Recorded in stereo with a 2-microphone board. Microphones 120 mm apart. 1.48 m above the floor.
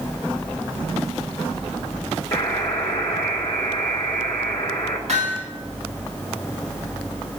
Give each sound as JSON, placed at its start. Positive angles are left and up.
{"t": 2.3, "sound": "a buzzer", "side_deg": 20, "distance_m": 4.0}
{"t": 5.1, "sound": "hammering", "side_deg": -65, "distance_m": 10.0}